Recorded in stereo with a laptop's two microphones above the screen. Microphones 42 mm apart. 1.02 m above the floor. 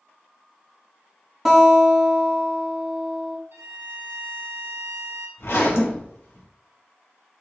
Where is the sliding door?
No sliding door in this recording.